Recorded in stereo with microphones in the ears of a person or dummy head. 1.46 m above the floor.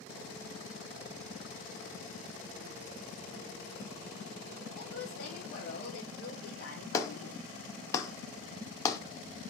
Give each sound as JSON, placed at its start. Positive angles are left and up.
{"t": 4.8, "sound": "a woman speaking", "side_deg": 50, "distance_m": 1.0}
{"t": 6.9, "sound": "a clap", "side_deg": 15, "distance_m": 0.5}